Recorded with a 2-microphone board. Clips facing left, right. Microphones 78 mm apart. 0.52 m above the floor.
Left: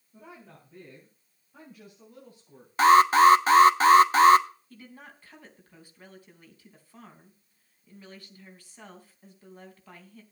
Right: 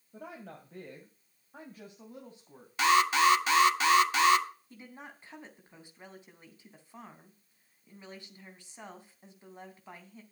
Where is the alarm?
35° left (ahead or behind), 1.1 m.